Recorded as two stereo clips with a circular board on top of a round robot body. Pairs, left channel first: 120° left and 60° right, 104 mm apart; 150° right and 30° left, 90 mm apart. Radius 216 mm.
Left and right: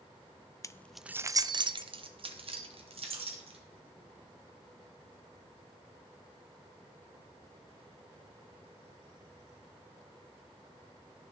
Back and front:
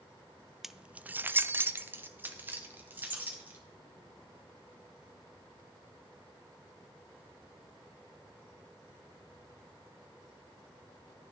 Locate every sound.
0.6 s keys jangling: 110° left, 0.5 m; by 3.6 s 40° right, 1.6 m